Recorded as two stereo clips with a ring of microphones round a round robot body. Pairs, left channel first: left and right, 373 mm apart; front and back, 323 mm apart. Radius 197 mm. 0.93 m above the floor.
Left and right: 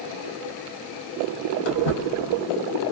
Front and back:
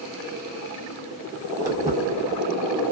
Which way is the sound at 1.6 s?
100° left.